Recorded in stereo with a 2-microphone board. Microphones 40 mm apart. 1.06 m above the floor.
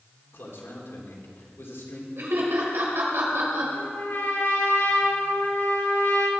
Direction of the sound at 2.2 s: 70° right (ahead or behind).